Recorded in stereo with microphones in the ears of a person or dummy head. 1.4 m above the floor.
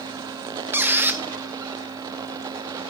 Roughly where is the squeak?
Centre.